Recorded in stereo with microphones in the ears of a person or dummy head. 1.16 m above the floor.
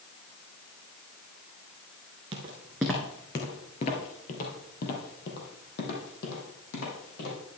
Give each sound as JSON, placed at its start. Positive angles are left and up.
{"t": 2.3, "sound": "footsteps", "side_deg": -25, "distance_m": 1.2}